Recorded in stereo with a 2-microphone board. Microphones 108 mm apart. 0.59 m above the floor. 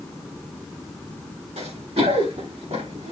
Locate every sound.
1.6 s running footsteps: 70° right (ahead or behind), 6 m; by 3.1 s 80° right, 6 m